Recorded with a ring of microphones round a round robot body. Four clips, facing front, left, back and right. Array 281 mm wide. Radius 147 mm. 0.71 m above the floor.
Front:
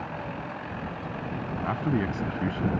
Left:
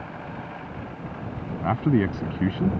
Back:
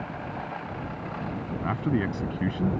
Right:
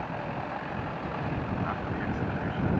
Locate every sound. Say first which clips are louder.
1.6 s a man speaking: left 9 dB, even; 100° left